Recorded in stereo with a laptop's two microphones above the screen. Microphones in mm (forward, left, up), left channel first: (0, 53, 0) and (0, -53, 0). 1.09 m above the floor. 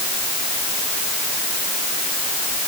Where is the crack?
No crack in this recording.